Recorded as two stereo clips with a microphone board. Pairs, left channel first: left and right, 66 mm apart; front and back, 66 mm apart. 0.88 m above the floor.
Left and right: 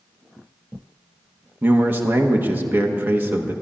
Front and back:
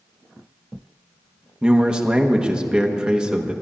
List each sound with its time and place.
1.6 s a man speaking: 115° right, 1.0 m